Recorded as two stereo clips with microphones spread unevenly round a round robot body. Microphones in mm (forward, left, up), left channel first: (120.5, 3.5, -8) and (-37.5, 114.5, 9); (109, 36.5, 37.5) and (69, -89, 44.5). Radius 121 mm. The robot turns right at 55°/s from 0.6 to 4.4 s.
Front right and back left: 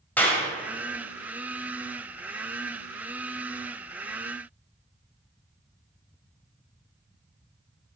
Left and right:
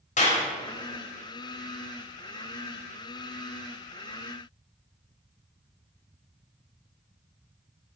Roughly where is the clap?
Ahead left.